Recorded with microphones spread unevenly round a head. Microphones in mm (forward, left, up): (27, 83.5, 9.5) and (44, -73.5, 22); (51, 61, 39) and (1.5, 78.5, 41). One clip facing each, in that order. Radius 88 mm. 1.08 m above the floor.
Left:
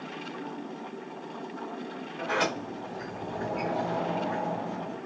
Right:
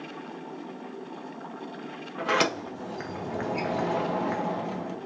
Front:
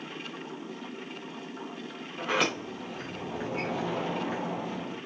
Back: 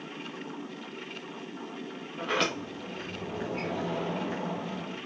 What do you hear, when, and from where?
2.2 s a sliding door: 105° right, 0.8 m